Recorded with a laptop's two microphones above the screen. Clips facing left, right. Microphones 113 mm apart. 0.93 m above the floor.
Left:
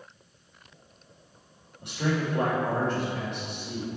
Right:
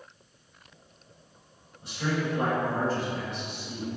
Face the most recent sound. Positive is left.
turn(degrees=70)  # may be behind; listen again after turning